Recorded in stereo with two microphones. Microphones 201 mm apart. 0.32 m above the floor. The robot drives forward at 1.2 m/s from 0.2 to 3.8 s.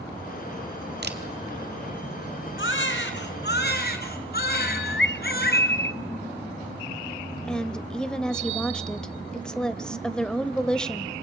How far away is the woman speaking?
About 1.3 m.